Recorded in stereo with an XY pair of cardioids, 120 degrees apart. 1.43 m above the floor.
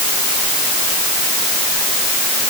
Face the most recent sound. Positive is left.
No sound to turn to.